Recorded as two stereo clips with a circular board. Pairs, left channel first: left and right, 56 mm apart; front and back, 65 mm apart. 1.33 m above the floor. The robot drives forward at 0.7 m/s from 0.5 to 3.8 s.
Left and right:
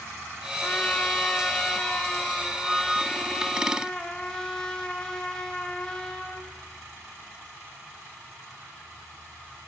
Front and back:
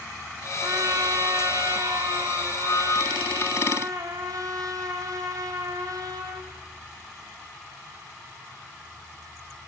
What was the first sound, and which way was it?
A trumpet, 150° left.